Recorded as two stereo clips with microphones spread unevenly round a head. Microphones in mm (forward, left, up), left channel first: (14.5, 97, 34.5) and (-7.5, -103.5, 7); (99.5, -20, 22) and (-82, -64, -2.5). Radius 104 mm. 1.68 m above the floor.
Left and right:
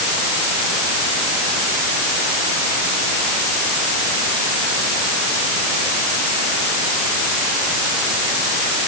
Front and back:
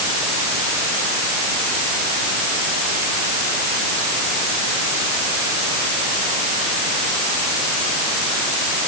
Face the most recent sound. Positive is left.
No sound to turn to.